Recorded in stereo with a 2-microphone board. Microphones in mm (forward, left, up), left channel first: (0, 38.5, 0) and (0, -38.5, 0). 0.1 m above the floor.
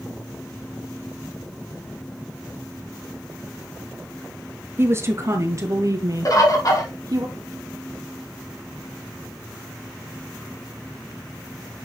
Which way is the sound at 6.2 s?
50° left (ahead or behind).